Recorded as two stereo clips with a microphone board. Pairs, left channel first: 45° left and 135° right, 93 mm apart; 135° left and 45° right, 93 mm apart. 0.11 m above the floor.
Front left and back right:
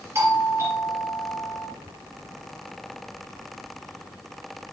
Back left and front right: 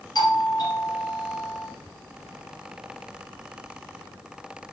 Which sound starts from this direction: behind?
A doorbell, at 0.1 s.